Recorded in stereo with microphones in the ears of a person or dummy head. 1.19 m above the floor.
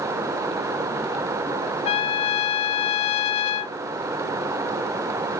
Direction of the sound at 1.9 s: 25° left (ahead or behind).